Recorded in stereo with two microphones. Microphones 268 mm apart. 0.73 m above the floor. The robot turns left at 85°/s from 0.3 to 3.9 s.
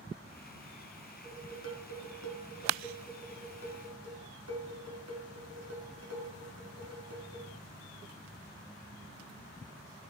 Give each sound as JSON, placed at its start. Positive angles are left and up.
{"t": 1.2, "sound": "dishes clattering", "azimuth_deg": 165, "distance_m": 5.0}